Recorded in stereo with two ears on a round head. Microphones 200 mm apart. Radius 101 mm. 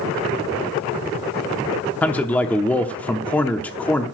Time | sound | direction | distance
2.0 | a man speaking | 5° left (ahead or behind) | 0.7 m